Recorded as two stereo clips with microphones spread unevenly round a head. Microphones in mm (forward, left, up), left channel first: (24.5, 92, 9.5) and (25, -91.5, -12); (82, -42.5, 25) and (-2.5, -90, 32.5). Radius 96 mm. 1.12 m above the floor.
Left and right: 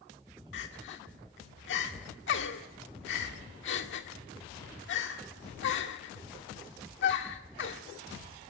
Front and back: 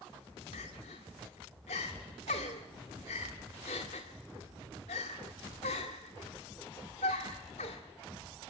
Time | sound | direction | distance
0.5 | crying | 70° left | 1.9 m